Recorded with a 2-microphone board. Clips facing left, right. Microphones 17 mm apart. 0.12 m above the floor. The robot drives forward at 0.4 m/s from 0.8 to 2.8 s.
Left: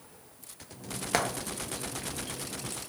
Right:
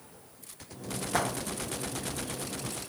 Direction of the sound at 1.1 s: 60° left (ahead or behind).